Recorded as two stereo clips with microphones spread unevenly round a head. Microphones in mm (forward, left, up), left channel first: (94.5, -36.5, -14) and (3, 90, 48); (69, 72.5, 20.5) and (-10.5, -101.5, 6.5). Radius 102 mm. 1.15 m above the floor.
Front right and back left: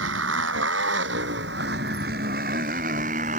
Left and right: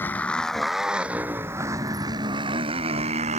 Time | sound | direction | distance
0.0 | a motorcycle | 150° left | ?